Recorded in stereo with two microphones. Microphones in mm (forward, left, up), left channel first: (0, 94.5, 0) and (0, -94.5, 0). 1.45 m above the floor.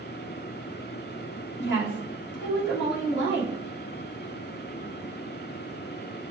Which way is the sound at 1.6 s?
65° left (ahead or behind).